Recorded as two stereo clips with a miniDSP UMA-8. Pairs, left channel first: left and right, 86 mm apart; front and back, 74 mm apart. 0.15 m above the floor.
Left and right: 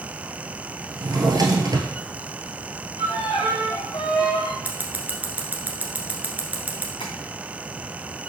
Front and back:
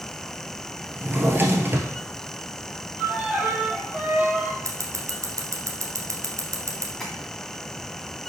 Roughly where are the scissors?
Behind right.